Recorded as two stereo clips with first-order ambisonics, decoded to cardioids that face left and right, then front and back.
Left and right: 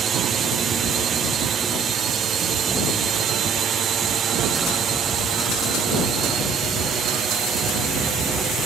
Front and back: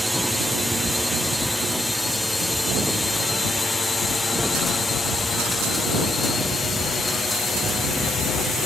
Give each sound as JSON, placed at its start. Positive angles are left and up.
{"t": 0.0, "sound": "a drone", "azimuth_deg": -95}